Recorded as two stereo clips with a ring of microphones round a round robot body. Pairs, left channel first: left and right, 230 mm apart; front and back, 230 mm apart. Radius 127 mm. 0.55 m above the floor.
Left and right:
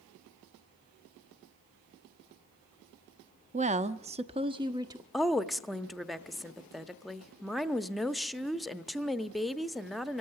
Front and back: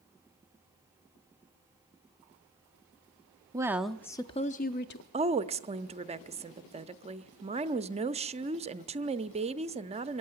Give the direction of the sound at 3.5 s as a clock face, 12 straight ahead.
4 o'clock.